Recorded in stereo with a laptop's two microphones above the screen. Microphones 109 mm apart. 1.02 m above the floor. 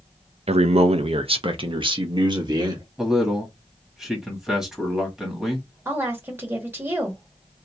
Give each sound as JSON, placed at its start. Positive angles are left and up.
{"t": 0.5, "sound": "a man speaking", "side_deg": -70, "distance_m": 0.6}
{"t": 3.0, "sound": "a man speaking", "side_deg": -5, "distance_m": 1.7}
{"t": 5.8, "sound": "a woman speaking", "side_deg": -20, "distance_m": 1.4}